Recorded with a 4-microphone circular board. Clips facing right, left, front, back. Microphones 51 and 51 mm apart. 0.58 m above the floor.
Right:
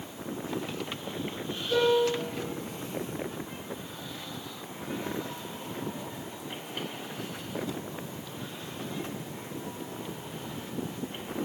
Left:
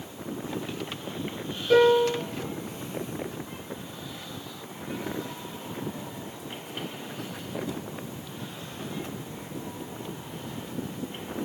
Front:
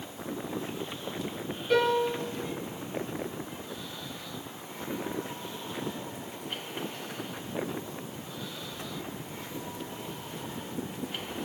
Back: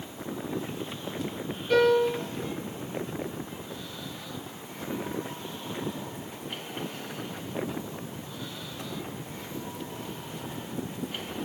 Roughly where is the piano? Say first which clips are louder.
Left 5 dB, back 4 dB; left.